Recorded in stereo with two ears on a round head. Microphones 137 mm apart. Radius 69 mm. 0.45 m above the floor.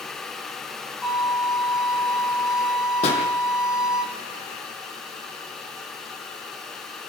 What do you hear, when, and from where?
1.0 s a violin: 5° right (ahead or behind), 7 m
3.0 s a pop: 40° left (ahead or behind), 5 m